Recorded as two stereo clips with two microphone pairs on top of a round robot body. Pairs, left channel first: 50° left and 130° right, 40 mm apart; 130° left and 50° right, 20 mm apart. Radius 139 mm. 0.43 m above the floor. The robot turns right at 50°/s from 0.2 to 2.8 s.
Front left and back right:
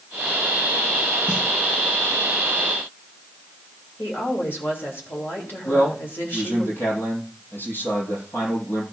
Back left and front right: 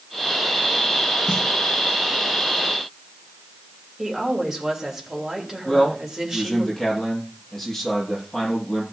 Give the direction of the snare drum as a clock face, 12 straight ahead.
12 o'clock.